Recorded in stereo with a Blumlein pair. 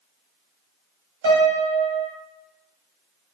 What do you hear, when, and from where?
1.2 s a piano: 60° right, 0.9 m